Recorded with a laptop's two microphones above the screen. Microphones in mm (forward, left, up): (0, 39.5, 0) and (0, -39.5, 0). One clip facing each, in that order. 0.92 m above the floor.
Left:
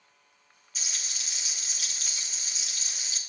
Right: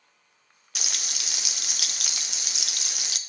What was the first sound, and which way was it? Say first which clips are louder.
Frying: right 4 dB; 70° right (ahead or behind).